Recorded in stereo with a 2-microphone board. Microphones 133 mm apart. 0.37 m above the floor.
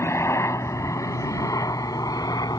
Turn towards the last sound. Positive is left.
turn(degrees=30)  # may be behind; listen again after turning